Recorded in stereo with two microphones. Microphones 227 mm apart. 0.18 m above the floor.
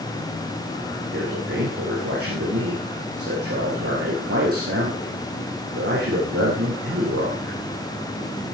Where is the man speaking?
85° right, 8.5 m.